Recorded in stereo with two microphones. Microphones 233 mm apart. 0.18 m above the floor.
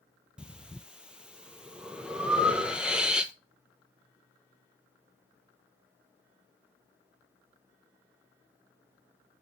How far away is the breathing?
About 0.7 m.